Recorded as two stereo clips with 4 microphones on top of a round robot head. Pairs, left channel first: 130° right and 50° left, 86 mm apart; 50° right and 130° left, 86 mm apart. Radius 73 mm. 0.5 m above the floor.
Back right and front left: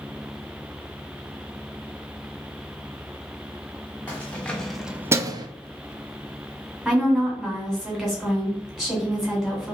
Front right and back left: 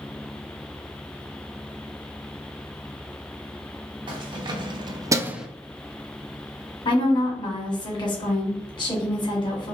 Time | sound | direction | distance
4.1 | keys jangling | 160° left | 1.2 m
6.8 | a woman speaking | 35° right | 2 m